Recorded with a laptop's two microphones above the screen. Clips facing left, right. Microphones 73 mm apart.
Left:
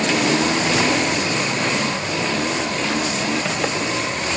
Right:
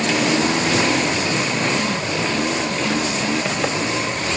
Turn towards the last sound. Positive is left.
No sound to turn to.